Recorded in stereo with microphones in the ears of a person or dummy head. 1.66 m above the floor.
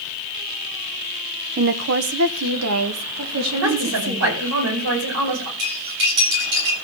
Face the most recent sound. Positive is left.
turn(degrees=-60)  # may be behind; listen again after turning